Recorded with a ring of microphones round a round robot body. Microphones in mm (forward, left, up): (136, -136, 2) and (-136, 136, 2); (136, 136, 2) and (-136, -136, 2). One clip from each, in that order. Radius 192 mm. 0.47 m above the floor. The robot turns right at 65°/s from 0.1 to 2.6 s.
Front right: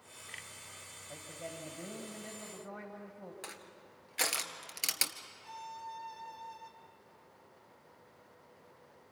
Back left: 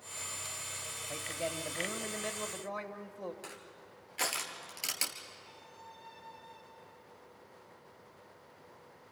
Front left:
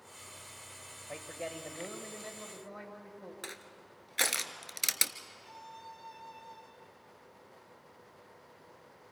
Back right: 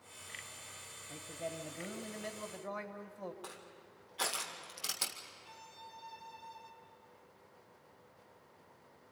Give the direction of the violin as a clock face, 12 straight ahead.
1 o'clock.